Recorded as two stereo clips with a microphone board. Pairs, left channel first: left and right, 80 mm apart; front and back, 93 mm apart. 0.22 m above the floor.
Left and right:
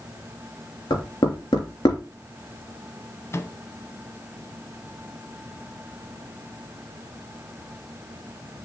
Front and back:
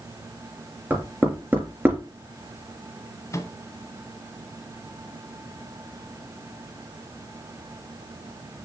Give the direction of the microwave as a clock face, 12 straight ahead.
10 o'clock.